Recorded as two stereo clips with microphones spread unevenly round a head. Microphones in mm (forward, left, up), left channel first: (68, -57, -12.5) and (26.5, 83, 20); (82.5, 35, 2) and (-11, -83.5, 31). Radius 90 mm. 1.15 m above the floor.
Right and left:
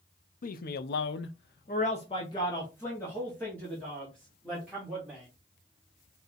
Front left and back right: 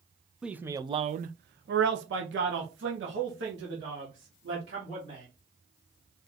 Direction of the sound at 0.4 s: 45° right.